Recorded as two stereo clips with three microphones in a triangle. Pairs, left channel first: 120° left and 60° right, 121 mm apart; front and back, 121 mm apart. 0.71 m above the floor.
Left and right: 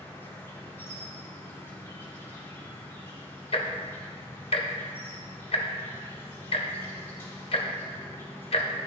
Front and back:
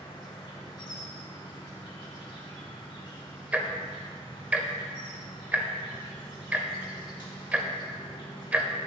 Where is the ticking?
105° left, 0.6 m.